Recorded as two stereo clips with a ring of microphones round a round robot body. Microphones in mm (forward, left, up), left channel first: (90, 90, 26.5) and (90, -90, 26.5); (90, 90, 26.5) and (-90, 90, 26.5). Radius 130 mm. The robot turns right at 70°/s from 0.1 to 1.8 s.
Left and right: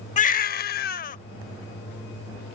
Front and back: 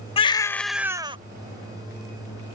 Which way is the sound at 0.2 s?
55° left.